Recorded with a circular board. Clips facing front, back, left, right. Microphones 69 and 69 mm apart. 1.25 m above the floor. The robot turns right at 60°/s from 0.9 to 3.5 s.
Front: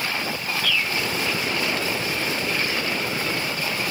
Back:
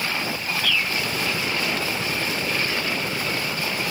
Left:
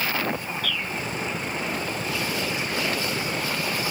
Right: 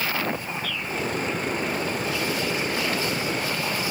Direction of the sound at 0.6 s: 90° left.